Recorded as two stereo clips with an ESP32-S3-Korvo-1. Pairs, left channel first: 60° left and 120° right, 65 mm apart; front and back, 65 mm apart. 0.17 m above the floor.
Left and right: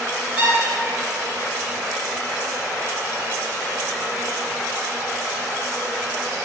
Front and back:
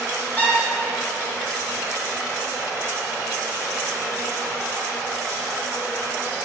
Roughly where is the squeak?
Ahead right.